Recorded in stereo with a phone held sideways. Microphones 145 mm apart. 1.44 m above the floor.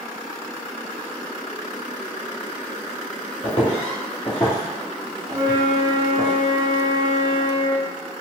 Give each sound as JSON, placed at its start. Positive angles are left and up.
{"t": 3.4, "sound": "footsteps", "side_deg": 40, "distance_m": 1.9}
{"t": 5.3, "sound": "a flute", "side_deg": -25, "distance_m": 0.6}